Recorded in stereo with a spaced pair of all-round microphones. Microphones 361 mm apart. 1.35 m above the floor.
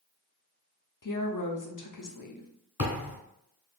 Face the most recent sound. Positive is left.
turn(degrees=40)  # may be behind; listen again after turning